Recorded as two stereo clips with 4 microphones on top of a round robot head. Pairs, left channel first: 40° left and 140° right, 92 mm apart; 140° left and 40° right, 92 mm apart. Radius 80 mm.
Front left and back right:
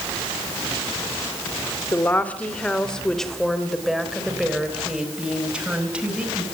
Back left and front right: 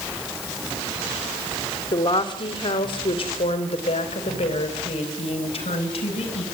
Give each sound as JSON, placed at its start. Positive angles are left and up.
{"t": 1.9, "sound": "a woman speaking", "azimuth_deg": 110, "distance_m": 2.5}